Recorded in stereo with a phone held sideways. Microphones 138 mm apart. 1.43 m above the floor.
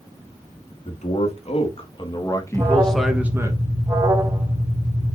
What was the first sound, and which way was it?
A man speaking, 55° left (ahead or behind).